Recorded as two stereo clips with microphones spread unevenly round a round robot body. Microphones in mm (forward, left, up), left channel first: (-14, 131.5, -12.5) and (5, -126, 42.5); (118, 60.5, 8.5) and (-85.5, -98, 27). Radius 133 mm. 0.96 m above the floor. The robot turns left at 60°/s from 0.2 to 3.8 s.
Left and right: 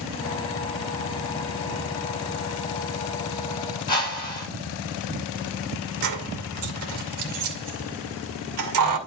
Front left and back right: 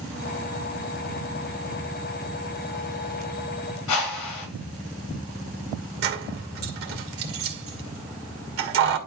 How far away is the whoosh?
About 4 m.